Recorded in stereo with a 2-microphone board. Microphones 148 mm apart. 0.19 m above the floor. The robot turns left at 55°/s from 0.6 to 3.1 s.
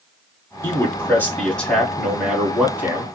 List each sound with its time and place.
0.6 s a man speaking: 20° left (ahead or behind), 1.2 m; by 3.0 s 15° right (ahead or behind), 1.2 m